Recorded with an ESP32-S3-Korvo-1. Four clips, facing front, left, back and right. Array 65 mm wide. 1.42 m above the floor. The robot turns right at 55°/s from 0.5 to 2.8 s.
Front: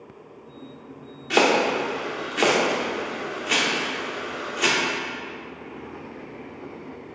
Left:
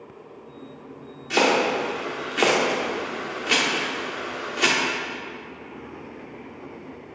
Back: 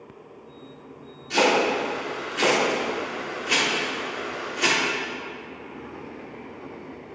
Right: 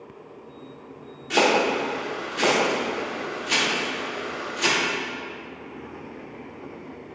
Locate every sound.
1.3 s chopping: 5° left, 1.3 m; by 4.8 s 85° left, 1.3 m